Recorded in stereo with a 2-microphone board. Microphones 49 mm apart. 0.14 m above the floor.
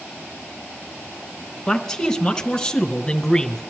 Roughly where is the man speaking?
Centre.